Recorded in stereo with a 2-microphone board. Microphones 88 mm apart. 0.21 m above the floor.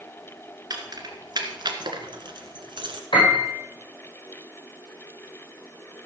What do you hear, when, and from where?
0.7 s keys jangling: 45° right (ahead or behind), 2 m; by 3.0 s 60° right (ahead or behind), 1.7 m
3.1 s a piano: 65° left (ahead or behind), 6 m